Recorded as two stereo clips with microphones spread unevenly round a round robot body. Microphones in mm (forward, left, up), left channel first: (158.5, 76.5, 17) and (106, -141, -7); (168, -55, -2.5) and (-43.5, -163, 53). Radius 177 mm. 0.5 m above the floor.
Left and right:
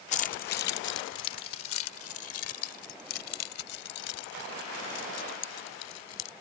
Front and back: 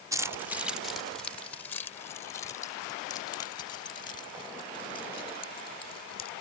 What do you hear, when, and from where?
0.1 s keys jangling: 115° left; by 6.3 s 100° left